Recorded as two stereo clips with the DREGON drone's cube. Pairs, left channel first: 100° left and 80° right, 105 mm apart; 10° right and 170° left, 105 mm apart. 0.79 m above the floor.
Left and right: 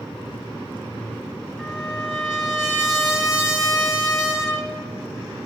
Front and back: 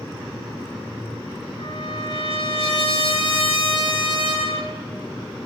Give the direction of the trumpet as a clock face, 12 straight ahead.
12 o'clock.